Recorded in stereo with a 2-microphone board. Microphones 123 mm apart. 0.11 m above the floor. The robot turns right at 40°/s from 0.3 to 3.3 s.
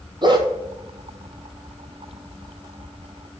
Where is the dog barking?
40° right (ahead or behind), 1.2 m; by 0.5 s 30° right (ahead or behind), 1.2 m.